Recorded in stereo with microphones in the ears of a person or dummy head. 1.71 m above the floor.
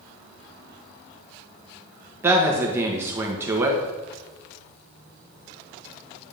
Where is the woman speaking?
15° right (ahead or behind), 1.3 m.